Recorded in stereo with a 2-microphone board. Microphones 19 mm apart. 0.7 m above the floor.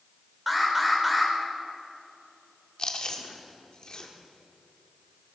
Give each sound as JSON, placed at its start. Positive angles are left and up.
{"t": 0.5, "sound": "an alarm", "side_deg": -10, "distance_m": 2.5}
{"t": 2.8, "sound": "chewing", "side_deg": 45, "distance_m": 1.3}